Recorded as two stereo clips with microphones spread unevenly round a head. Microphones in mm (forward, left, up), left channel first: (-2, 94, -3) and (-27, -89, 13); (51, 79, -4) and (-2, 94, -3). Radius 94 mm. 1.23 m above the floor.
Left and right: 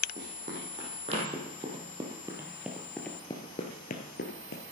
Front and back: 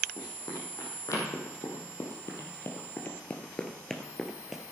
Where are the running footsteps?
50° right, 4 m; by 4.6 s 85° left, 1.9 m.